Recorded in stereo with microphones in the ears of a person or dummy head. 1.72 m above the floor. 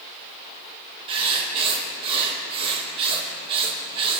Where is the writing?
35° right (ahead or behind), 1.5 m.